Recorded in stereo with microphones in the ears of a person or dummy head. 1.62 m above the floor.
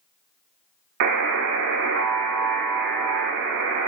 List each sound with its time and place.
1.0 s a buzzer: 60° right (ahead or behind), 0.5 m